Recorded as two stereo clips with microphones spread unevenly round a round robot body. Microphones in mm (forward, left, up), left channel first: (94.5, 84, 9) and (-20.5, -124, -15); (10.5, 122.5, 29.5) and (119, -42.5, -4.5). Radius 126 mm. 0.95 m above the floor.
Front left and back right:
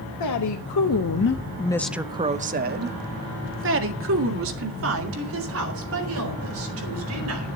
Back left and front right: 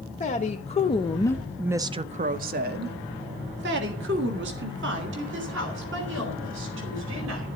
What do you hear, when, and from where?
0.2 s a woman speaking: 70° left, 1.3 m; by 7.5 s 95° right, 4.5 m